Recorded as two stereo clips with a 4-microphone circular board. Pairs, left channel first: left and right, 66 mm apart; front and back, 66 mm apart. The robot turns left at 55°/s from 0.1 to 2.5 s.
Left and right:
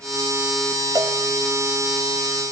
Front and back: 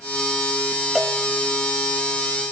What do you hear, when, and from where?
0.9 s a cowbell: 95° right, 1.3 m; by 1.2 s 110° right, 1.3 m